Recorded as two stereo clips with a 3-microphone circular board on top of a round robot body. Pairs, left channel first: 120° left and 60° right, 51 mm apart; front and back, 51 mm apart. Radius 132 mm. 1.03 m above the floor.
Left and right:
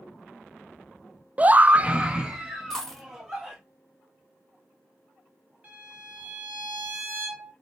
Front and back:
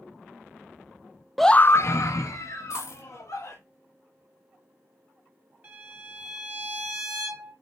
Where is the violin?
120° right, 3 m.